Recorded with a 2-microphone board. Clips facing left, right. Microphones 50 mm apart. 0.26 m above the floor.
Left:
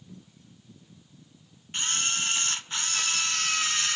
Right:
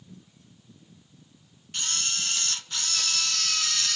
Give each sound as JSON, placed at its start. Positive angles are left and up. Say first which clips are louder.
{"t": 1.7, "sound": "a camera shutter", "louder": "left 3 dB", "side_deg": 25, "distance_m": 0.7}